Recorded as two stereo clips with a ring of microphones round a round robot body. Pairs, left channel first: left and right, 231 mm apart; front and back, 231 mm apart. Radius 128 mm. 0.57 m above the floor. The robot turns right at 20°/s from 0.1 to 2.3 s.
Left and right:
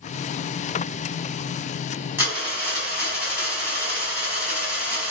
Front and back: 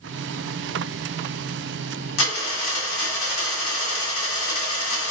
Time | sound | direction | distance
2.2 | a dropped coin | 5° right | 1.7 m